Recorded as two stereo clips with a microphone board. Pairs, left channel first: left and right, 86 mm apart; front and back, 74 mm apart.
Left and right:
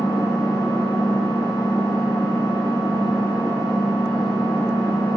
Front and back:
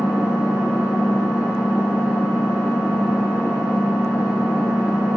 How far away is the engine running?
About 1.6 m.